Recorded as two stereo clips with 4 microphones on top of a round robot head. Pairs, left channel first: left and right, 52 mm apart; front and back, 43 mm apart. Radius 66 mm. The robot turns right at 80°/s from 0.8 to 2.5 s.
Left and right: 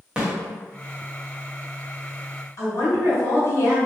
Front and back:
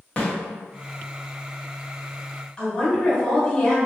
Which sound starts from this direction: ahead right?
A snare drum, at 0.2 s.